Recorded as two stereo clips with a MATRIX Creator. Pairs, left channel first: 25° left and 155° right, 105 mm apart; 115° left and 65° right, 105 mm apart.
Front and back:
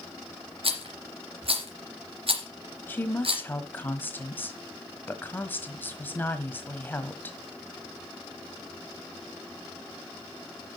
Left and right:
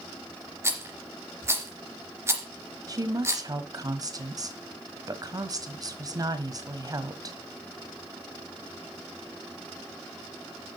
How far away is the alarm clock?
No alarm clock in this recording.